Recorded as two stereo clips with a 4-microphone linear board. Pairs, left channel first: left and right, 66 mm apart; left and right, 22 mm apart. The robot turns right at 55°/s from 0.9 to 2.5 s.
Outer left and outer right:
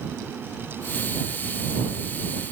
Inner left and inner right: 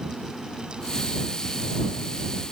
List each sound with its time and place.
Only background noise.